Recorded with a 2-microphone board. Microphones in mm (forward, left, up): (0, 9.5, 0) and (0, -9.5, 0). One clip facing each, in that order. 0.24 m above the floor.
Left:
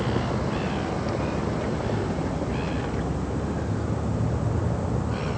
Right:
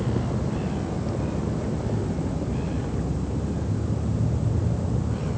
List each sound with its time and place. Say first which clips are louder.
0.0 s a vehicle: left 1 dB; 40° left (ahead or behind)